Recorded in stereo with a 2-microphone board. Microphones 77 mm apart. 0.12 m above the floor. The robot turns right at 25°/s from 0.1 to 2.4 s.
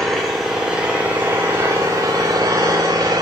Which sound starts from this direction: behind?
An engine running, at 0.0 s.